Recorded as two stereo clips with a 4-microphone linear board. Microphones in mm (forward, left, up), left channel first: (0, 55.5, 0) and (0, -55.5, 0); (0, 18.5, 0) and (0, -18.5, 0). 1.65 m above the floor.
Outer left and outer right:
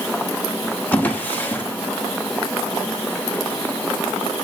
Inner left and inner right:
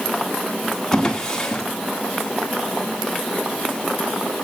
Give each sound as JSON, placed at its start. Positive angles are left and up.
{"t": 0.9, "sound": "a drawer", "side_deg": 15, "distance_m": 1.6}